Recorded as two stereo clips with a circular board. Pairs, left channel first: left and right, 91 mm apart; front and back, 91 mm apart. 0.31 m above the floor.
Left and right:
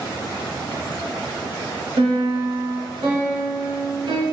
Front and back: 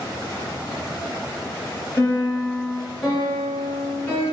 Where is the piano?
65° right, 1.7 m.